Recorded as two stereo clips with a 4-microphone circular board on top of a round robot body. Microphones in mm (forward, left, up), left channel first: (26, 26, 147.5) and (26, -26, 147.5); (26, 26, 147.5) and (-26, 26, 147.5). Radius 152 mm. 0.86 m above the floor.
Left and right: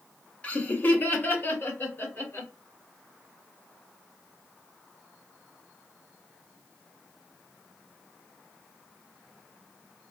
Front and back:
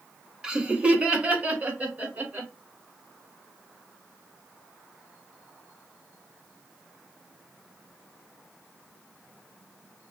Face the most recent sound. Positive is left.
turn(degrees=125)